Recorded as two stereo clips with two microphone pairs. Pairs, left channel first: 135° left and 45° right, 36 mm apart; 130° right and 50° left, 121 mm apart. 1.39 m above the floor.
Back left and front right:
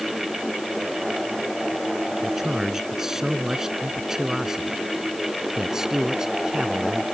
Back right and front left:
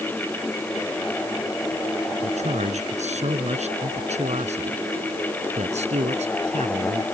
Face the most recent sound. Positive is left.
turn(degrees=30)